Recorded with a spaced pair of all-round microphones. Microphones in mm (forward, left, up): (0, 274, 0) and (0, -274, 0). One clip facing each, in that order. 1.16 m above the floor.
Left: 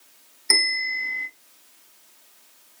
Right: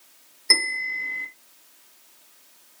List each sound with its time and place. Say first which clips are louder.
0.5 s a bell: even; 10° left (ahead or behind), 0.8 m